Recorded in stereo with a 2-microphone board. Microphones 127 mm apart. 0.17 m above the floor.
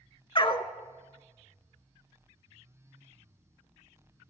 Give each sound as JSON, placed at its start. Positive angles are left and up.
{"t": 0.3, "sound": "a dog barking", "side_deg": 40, "distance_m": 0.7}